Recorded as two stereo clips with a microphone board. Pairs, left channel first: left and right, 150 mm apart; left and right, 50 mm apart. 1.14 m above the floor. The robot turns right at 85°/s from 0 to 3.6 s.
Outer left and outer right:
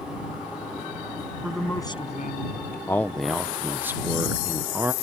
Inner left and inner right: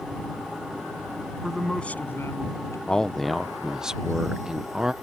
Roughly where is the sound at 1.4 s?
Ahead.